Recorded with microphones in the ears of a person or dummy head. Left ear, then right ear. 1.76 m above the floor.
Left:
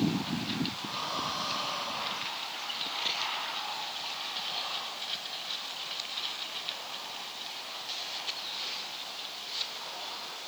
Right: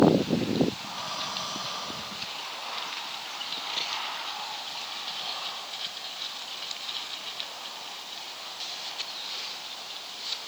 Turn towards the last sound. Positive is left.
turn(degrees=60)  # may be behind; listen again after turning